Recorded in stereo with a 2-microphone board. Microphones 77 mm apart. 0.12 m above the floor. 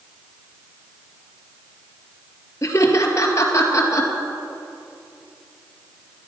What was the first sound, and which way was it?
Laughter, 40° left (ahead or behind).